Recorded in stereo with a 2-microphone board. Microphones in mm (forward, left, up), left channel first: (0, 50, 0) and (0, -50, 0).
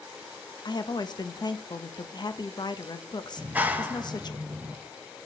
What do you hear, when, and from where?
0.7 s a woman speaking: 45° left (ahead or behind), 0.7 m
3.4 s a clap: 15° right (ahead or behind), 0.8 m